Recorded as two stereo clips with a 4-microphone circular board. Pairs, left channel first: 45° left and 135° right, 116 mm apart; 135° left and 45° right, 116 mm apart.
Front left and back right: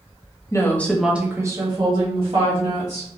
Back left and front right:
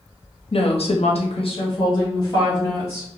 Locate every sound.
0.5 s a woman speaking: 105° left, 0.6 m; by 3.1 s 165° right, 1.6 m